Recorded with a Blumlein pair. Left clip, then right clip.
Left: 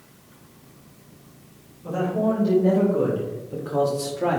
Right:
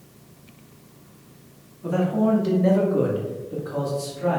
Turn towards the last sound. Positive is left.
turn(degrees=20)